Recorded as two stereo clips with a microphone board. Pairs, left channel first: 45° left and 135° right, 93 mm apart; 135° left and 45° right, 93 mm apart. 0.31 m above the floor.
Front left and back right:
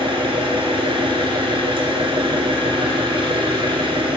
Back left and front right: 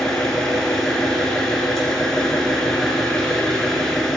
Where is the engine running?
140° right, 2.5 m.